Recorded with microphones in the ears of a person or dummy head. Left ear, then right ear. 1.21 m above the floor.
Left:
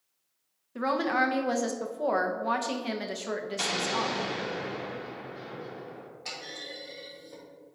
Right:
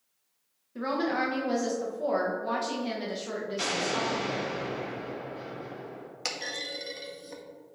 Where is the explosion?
5° left (ahead or behind), 2 m.